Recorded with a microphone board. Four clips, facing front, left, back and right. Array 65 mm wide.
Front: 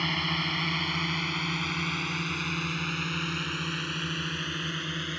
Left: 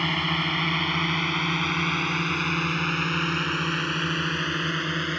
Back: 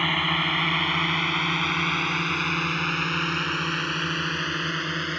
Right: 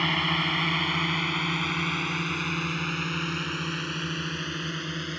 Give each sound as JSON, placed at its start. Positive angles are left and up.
{"t": 0.0, "sound": "a drone", "azimuth_deg": 180}